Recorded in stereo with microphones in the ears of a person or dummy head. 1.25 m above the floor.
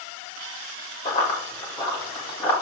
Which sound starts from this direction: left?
Running footsteps, at 1.1 s.